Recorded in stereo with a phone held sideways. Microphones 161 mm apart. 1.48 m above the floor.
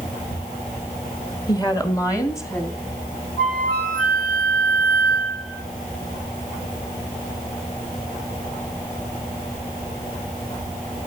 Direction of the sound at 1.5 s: 25° left (ahead or behind).